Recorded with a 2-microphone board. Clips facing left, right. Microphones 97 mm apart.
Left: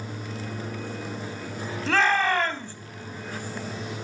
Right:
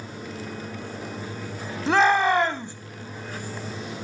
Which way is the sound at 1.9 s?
20° right (ahead or behind).